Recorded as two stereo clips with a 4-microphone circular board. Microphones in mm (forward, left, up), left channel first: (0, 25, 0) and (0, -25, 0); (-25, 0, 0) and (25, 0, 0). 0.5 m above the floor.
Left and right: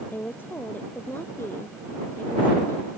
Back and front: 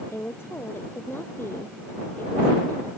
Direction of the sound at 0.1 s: 140° left.